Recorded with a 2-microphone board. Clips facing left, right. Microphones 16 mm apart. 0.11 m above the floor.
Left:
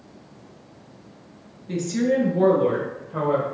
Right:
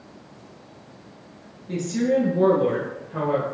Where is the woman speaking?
15° left (ahead or behind), 1.2 m; by 3.4 s 5° left (ahead or behind), 2 m.